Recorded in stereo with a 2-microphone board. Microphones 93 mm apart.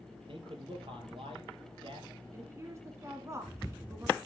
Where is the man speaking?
65° right (ahead or behind), 3.5 m.